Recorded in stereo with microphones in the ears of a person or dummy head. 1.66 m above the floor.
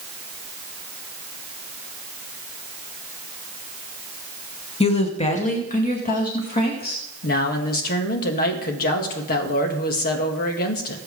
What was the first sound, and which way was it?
A woman speaking, 30° left (ahead or behind).